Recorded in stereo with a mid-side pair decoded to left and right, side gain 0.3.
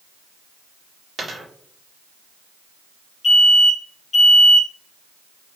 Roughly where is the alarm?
Ahead left.